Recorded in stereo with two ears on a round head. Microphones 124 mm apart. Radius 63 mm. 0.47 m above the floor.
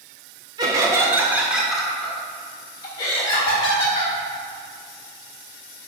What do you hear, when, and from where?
0.6 s laughter: 30° right (ahead or behind), 1.6 m; by 4.1 s 45° left (ahead or behind), 2 m